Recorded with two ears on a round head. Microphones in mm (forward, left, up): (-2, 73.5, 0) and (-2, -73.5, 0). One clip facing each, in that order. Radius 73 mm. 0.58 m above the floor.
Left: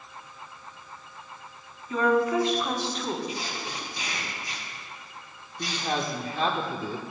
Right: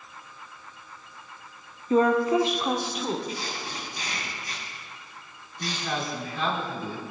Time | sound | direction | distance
1.9 | a woman speaking | 30° right (ahead or behind) | 0.9 m
3.3 | tape being pulled | 20° left (ahead or behind) | 4.5 m
5.6 | a man speaking | 30° left (ahead or behind) | 1.8 m